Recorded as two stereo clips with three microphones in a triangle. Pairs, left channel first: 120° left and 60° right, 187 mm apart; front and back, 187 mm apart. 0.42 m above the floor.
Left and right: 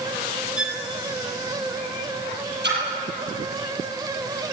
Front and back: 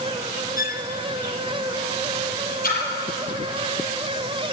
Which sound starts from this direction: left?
A violin, at 0.6 s.